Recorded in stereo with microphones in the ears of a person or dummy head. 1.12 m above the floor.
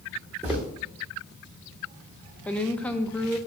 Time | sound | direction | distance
0.4 | footsteps | 10° right (ahead or behind) | 3.5 m
2.5 | a woman speaking | 10° left (ahead or behind) | 0.8 m